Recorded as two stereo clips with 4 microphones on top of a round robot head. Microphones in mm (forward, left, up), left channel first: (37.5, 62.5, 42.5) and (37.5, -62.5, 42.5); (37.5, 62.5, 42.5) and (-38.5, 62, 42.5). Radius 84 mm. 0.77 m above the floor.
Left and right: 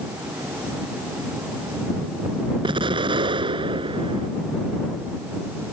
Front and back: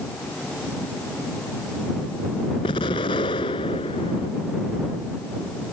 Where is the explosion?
40° right.